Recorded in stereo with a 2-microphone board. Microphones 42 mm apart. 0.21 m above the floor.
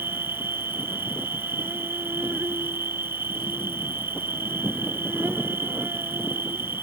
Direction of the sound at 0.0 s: 70° right (ahead or behind).